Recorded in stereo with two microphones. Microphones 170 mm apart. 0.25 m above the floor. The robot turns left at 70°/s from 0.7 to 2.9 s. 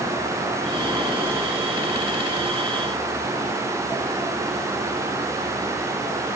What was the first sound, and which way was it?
Only background noise.